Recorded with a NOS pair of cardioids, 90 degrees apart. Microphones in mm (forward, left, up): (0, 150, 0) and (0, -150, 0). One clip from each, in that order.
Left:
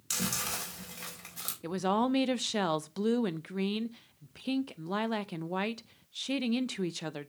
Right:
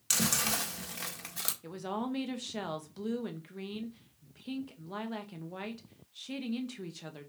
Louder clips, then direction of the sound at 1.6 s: Left 13 dB; 45° left.